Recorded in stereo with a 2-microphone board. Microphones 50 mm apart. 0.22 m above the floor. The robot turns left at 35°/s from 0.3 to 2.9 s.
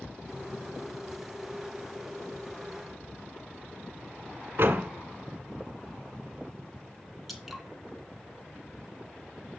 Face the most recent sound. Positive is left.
turn(degrees=0)  # may be behind; listen again after turning